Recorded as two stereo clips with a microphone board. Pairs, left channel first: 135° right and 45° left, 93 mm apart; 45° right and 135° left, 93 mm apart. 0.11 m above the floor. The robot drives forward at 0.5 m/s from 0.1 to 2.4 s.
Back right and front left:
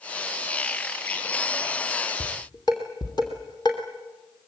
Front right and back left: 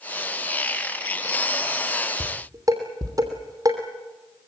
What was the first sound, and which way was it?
Dishes clattering, 175° right.